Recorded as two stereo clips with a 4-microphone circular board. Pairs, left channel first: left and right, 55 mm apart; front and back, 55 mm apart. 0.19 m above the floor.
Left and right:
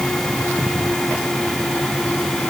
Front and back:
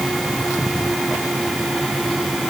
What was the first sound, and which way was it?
Only background noise.